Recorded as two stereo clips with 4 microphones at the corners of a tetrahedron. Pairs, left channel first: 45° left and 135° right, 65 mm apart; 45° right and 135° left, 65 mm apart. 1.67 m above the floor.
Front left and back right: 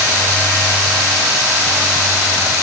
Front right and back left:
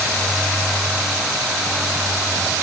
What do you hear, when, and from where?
Only background noise.